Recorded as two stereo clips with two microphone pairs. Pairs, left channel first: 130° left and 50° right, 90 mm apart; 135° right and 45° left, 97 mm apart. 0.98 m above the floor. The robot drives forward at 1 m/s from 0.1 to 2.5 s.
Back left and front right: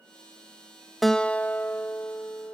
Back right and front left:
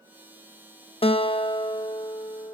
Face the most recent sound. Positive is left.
turn(degrees=-170)